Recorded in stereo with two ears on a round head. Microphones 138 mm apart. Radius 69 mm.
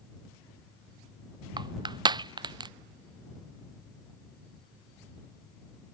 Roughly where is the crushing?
Right.